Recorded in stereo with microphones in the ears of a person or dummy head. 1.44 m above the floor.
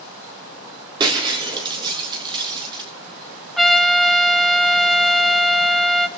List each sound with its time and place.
1.0 s breaking glass: 25° right (ahead or behind), 5.5 m
3.6 s a trumpet: centre (ahead or behind), 1.6 m